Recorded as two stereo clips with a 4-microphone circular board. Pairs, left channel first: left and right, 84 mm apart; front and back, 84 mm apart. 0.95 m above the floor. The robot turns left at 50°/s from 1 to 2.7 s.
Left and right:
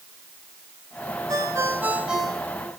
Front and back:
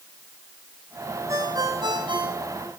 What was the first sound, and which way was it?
A ringtone, 130° right.